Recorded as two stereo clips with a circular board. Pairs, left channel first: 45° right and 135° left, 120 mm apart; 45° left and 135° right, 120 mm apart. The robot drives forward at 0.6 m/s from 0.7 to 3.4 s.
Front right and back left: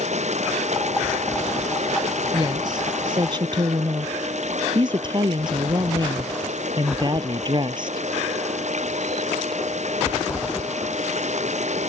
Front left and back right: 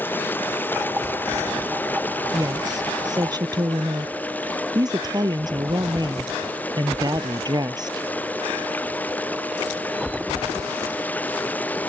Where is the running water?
120° left.